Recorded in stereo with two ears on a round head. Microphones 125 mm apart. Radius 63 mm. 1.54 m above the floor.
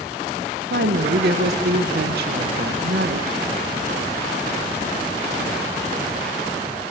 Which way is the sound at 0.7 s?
75° right (ahead or behind).